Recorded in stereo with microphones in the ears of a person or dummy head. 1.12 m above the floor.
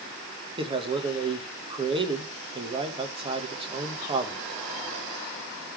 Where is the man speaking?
25° right (ahead or behind), 1.1 m.